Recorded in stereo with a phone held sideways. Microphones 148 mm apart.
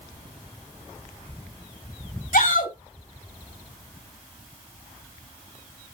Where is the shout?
70° left (ahead or behind), 6 m.